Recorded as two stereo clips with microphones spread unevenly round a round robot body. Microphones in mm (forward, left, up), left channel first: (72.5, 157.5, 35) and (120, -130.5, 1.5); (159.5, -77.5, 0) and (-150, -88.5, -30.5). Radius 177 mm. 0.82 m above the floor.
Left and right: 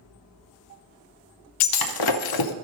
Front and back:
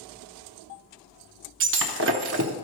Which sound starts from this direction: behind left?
Breaking glass, at 1.6 s.